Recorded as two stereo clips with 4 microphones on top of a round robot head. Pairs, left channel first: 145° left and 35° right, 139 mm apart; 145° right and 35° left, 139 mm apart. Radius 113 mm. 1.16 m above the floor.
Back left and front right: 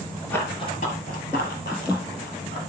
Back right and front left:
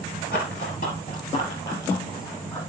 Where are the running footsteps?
135° right, 1.3 m; by 2.6 s 135° left, 3 m.